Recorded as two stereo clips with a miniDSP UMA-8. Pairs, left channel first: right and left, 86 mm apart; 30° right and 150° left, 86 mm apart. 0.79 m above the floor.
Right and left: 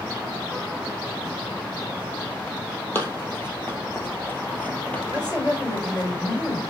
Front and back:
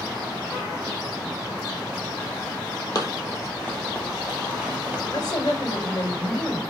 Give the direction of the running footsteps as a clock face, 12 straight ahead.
1 o'clock.